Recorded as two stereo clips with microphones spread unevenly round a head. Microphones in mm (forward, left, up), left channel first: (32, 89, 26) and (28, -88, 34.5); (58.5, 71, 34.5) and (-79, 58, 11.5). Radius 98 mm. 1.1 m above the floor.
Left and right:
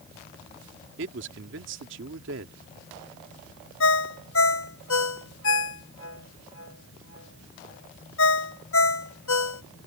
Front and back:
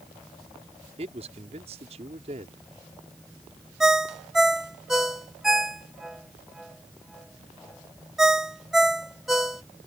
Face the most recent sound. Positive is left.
turn(degrees=95)